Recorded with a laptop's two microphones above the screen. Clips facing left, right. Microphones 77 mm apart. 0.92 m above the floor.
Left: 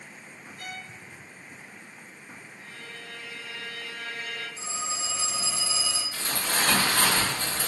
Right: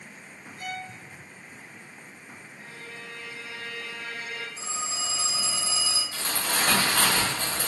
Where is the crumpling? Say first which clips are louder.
Even; 75° right (ahead or behind), 1.5 m.